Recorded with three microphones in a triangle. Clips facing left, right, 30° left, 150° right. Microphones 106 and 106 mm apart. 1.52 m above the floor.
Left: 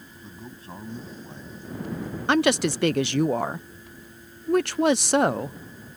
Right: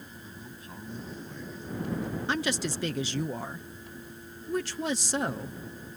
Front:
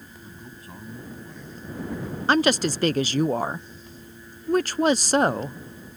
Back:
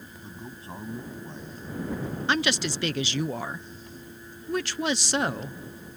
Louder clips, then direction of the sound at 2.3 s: Left 12 dB, front 7 dB; 75° left.